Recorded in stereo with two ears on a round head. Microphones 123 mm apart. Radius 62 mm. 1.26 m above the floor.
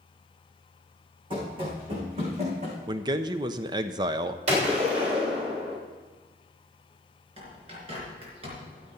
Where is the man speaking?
30° right (ahead or behind), 0.6 m.